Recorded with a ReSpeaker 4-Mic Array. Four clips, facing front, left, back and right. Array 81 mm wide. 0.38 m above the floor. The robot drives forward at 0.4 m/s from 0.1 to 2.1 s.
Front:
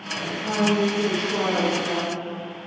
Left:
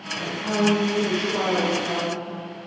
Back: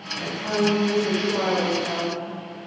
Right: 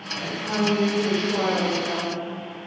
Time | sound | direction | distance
0.2 | a woman speaking | 165° right | 0.8 m